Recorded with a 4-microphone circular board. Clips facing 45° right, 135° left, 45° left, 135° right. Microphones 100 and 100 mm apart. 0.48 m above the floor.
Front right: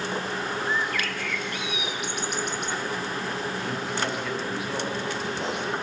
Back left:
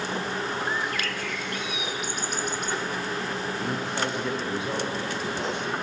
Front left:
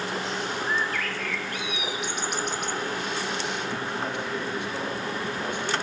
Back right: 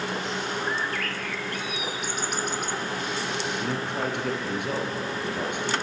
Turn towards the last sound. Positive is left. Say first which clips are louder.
# back left 1 dB, back right 2 dB
turn(degrees=-165)